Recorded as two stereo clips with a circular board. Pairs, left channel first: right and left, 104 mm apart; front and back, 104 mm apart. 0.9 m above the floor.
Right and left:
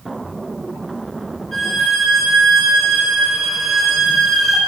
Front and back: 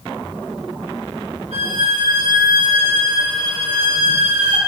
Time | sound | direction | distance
1.5 | a violin | straight behind | 1.9 m